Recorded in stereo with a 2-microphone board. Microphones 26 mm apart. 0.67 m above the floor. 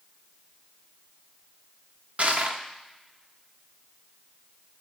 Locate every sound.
2.2 s crushing: 60° right (ahead or behind), 0.8 m